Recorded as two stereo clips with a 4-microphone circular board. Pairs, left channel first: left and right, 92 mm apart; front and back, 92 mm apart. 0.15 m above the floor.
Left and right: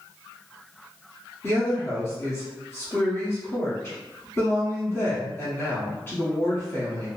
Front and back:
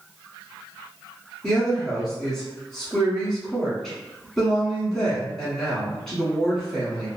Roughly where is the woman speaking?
Left.